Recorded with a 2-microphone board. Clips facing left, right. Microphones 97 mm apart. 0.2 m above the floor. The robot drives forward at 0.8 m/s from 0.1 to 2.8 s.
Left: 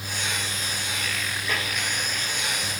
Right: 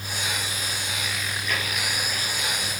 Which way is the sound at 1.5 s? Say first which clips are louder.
Even; 30° left (ahead or behind).